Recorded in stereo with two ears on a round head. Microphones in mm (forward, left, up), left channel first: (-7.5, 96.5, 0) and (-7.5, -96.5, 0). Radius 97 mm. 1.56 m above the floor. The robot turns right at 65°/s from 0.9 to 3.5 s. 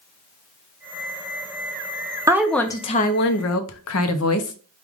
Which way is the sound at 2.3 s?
15° right.